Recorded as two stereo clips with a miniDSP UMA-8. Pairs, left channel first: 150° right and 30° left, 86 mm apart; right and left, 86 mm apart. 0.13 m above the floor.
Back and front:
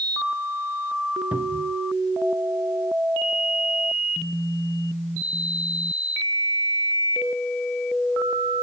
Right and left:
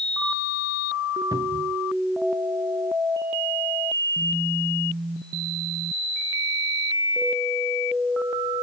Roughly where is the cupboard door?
Left.